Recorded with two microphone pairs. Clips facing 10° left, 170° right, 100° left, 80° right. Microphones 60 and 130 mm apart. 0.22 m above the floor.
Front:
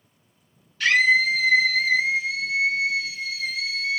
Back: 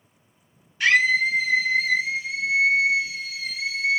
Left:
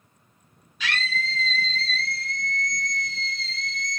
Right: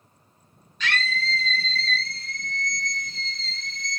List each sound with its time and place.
0.8 s a scream: 170° left, 1.5 m